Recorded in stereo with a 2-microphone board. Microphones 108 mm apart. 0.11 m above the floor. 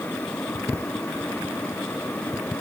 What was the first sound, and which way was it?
Only background noise.